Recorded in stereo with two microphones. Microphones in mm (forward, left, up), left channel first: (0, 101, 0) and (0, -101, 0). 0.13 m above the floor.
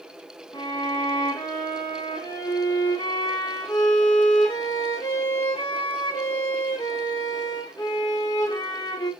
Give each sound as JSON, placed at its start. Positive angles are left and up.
{"t": 0.5, "sound": "a violin", "side_deg": 20, "distance_m": 3.0}